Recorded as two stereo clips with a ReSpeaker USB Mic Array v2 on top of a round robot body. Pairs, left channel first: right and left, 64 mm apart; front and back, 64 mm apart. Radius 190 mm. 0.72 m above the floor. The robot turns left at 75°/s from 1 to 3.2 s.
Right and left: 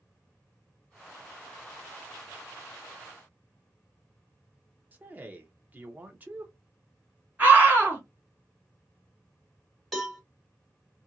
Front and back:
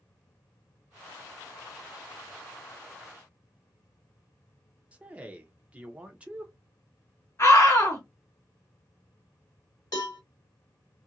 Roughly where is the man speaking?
Behind left.